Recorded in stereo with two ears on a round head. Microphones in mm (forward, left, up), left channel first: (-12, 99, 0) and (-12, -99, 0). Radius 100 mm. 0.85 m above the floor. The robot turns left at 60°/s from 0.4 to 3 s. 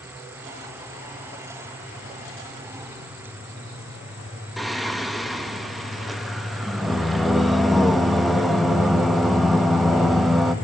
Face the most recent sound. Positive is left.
turn(degrees=0)  # may be behind; listen again after turning